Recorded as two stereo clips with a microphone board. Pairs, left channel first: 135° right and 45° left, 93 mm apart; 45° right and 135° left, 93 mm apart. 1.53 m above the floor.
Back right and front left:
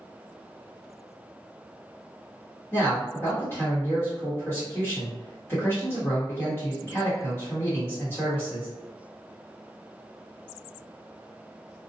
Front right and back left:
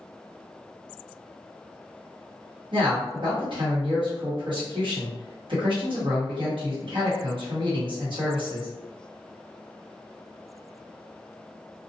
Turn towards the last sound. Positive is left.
turn(degrees=160)